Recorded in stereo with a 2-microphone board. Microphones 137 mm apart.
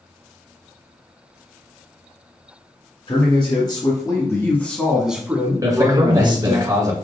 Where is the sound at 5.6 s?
25° right (ahead or behind), 1.4 m.